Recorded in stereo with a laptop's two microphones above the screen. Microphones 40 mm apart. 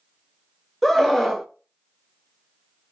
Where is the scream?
5° left (ahead or behind), 0.8 m.